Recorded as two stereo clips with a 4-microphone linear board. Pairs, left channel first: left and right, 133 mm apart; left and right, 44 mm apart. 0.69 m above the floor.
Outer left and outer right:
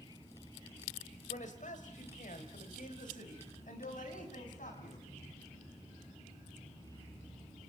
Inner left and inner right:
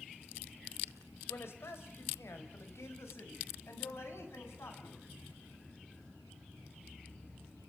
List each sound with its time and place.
1.3 s a man speaking: 70° left (ahead or behind), 4 m; by 5.0 s 75° left (ahead or behind), 7 m